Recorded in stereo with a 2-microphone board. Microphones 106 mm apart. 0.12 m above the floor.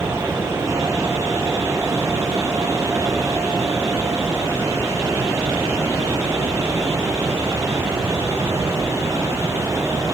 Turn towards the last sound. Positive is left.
No sound to turn to.